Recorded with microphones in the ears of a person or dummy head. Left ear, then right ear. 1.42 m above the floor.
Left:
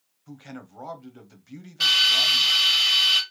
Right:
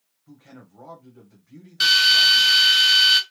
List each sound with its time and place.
0.3 s a man speaking: 60° left (ahead or behind), 0.8 m
1.8 s a drill: 25° right (ahead or behind), 1.7 m